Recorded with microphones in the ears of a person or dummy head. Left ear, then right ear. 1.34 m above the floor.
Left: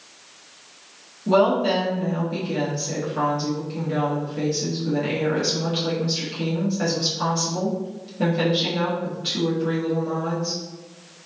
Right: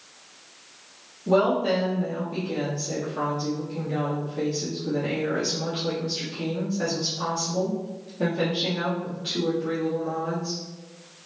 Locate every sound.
1.3 s a woman speaking: 15° left (ahead or behind), 1.6 m